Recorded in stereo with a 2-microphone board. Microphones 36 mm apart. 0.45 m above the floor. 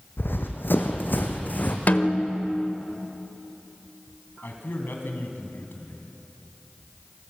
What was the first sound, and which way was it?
Running footsteps, 75° left (ahead or behind).